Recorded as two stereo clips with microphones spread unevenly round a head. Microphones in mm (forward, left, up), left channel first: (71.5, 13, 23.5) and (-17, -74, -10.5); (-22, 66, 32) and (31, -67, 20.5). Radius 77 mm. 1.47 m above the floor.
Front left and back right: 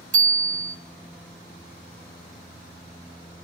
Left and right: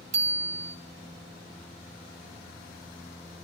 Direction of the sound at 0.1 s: 115° right.